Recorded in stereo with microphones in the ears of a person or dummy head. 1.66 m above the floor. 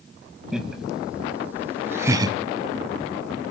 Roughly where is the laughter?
Centre.